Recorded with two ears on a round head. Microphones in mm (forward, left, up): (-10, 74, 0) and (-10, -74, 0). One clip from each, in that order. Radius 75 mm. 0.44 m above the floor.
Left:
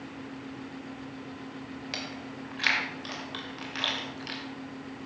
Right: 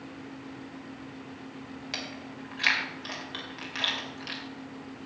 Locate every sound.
1.9 s chewing: 5° right (ahead or behind), 2 m